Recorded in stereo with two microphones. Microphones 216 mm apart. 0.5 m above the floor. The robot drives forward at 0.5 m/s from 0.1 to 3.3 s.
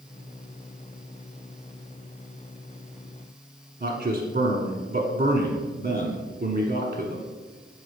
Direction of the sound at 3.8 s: 35° right (ahead or behind).